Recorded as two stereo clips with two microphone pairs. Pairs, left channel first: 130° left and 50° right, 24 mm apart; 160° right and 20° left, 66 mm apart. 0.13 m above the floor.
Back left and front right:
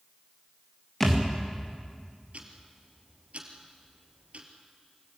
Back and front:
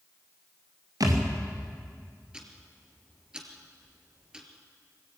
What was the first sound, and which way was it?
A thud, 50° left.